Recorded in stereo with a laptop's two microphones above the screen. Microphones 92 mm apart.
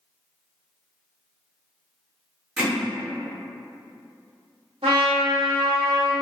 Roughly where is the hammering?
Centre.